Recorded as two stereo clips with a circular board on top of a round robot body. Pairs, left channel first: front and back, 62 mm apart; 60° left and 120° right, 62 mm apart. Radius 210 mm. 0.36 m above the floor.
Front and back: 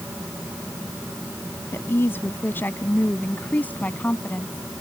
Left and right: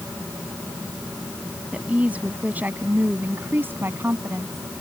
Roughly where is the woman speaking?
Ahead right.